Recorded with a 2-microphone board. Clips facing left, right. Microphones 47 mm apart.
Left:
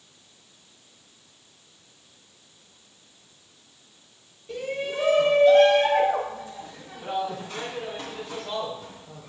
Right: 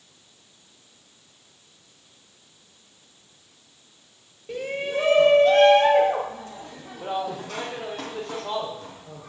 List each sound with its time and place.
4.5 s a shout: 30° right (ahead or behind), 1.8 m; by 9.3 s 75° right (ahead or behind), 5.5 m